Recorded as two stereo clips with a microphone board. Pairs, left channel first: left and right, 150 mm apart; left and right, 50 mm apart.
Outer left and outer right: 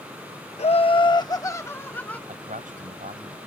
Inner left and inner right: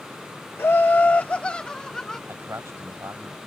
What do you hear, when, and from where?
0.6 s laughter: 45° left (ahead or behind); by 2.2 s 10° left (ahead or behind)
2.3 s a man speaking: 60° right (ahead or behind)